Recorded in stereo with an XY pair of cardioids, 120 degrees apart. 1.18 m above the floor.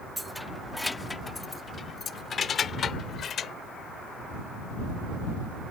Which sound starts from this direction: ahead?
Keys jangling, at 0.2 s.